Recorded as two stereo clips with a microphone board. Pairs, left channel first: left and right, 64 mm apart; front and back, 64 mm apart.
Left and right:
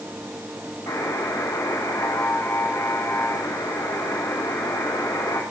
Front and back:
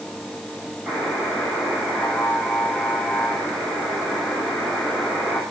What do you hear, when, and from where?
0.9 s a buzzer: 110° left, 9.5 m